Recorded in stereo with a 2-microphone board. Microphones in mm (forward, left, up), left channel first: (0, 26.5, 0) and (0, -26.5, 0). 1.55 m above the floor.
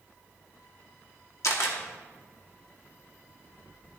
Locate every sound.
1.4 s a camera shutter: 70° left (ahead or behind), 2 m